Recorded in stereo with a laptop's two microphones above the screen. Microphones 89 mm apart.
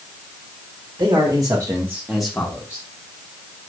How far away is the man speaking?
About 1.5 m.